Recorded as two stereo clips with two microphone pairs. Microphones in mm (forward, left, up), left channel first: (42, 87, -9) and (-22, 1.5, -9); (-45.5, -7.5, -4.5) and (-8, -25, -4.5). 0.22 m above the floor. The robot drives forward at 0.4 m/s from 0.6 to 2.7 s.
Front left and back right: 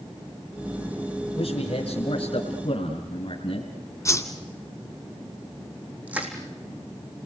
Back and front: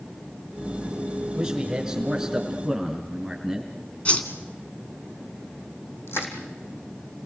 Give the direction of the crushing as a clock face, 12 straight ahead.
7 o'clock.